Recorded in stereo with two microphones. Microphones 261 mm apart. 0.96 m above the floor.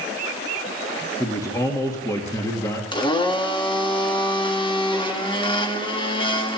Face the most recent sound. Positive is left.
turn(degrees=20)  # may be behind; listen again after turning